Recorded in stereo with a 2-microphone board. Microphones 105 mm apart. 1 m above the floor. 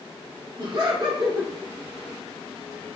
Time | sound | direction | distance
0.6 | laughter | 45° right (ahead or behind) | 1.4 m